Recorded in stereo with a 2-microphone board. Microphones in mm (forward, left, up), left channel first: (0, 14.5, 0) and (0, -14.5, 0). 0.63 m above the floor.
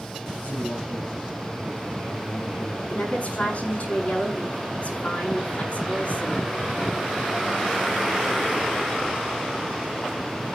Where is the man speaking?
70° left (ahead or behind), 9.5 m.